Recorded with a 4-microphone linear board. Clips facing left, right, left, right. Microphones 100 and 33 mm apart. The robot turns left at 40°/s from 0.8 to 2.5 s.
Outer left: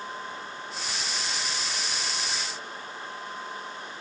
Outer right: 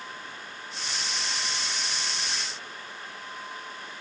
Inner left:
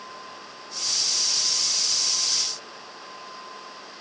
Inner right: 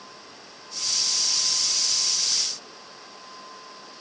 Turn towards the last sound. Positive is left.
No sound to turn to.